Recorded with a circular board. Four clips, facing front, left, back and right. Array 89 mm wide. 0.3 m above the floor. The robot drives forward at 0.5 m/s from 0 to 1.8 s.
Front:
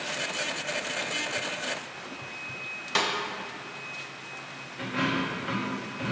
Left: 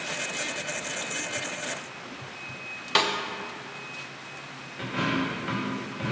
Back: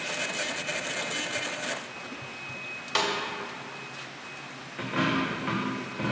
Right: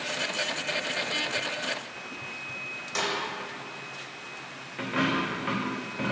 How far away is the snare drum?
About 1.0 m.